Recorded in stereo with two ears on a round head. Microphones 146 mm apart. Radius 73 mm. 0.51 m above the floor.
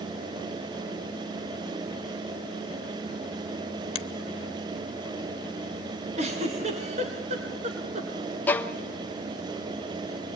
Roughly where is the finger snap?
Left.